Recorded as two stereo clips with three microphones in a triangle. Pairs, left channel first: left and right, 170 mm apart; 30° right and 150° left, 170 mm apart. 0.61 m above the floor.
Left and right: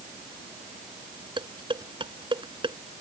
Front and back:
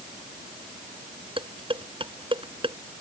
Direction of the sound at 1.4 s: 150° right.